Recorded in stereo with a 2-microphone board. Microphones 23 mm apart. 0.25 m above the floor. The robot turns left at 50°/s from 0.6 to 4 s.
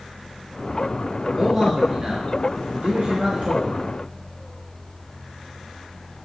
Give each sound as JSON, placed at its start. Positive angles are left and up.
{"t": 1.4, "sound": "a man speaking", "azimuth_deg": 0, "distance_m": 3.5}